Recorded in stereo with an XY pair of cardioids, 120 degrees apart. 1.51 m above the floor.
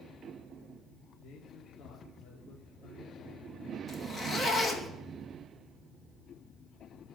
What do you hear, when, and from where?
1.2 s a man speaking: 65° left, 4.5 m
3.9 s a zipper: 25° left, 2.5 m